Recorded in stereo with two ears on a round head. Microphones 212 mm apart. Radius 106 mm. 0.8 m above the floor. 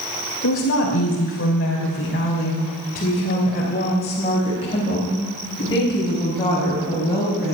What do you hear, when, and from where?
0.4 s a woman speaking: 60° left (ahead or behind), 2.5 m; by 7.5 s 15° left (ahead or behind), 4.5 m